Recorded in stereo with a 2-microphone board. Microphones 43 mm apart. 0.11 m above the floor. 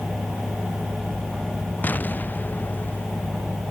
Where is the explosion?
45° left (ahead or behind).